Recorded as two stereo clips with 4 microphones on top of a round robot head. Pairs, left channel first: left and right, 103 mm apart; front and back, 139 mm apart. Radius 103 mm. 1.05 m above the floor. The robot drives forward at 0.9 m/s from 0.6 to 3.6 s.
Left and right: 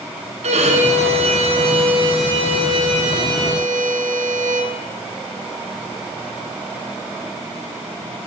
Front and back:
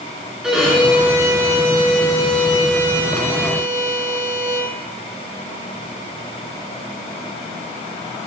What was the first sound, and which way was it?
A violin, 95° right.